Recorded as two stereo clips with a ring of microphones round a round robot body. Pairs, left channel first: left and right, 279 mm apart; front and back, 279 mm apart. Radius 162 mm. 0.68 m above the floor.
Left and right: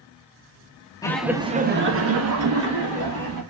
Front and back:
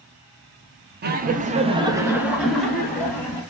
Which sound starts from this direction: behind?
Laughter, at 1.0 s.